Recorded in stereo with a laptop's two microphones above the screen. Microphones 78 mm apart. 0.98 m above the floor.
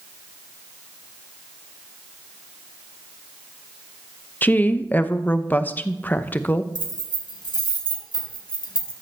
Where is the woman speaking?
25° left (ahead or behind), 0.8 m.